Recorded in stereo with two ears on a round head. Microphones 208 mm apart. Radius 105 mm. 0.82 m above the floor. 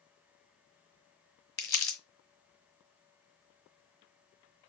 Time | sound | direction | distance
1.6 | crumpling | 10° left (ahead or behind) | 1.1 m